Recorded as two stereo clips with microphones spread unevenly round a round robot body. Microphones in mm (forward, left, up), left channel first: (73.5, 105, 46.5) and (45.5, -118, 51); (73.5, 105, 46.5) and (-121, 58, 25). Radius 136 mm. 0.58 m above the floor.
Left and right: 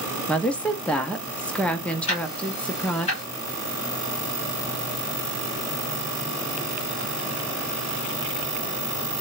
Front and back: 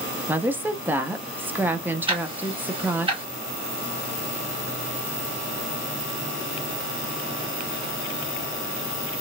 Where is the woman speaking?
155° left, 0.6 m.